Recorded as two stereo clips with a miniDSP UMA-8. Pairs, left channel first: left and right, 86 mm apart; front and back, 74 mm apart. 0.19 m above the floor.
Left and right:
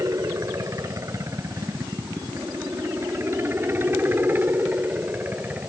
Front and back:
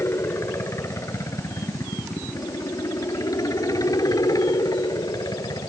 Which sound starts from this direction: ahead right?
A helicopter, at 0.0 s.